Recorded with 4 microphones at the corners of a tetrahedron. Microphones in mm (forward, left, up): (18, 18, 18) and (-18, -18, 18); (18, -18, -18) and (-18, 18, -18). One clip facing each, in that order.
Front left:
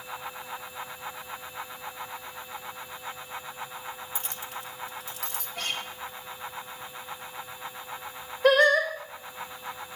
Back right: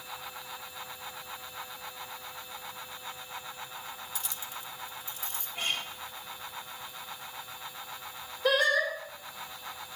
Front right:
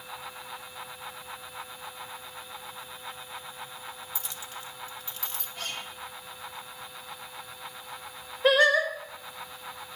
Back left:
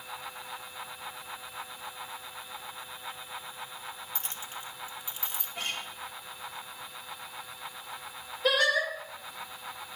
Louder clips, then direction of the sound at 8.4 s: Front left 6 dB, front right 5 dB; 15° left.